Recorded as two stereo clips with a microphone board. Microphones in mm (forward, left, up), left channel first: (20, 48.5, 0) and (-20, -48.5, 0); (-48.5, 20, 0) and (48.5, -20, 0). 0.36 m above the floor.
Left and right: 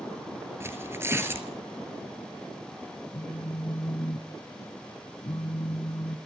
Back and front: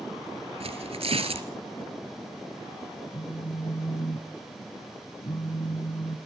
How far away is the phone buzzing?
About 1.3 m.